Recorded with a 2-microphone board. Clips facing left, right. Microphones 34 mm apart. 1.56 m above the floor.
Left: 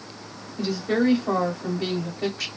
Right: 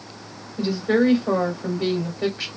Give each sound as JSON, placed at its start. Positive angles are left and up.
{"t": 0.6, "sound": "a woman speaking", "side_deg": -25, "distance_m": 2.5}